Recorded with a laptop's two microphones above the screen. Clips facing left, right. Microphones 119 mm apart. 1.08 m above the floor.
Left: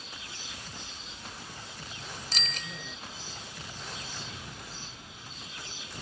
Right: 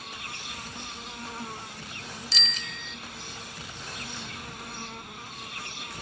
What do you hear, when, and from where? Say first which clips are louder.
0.0 s an insect: right 5 dB; 65° right (ahead or behind)
2.3 s a bicycle bell: right 1 dB; 50° left (ahead or behind)